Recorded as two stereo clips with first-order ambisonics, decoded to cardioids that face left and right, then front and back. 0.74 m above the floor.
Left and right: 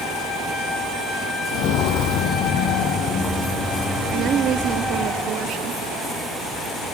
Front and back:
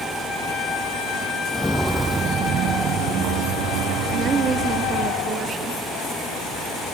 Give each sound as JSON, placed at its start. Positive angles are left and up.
{"t": 1.5, "sound": "footsteps", "azimuth_deg": 70, "distance_m": 1.0}
{"t": 4.1, "sound": "a woman speaking", "azimuth_deg": -125, "distance_m": 0.9}